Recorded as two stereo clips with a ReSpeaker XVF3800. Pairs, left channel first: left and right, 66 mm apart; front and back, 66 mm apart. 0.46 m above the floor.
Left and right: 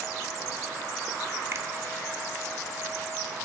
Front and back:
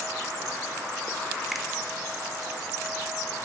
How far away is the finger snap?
About 0.7 m.